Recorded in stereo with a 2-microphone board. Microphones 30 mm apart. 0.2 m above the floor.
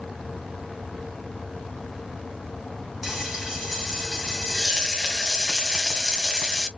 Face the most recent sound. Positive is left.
turn(degrees=-15)  # may be behind; listen again after turning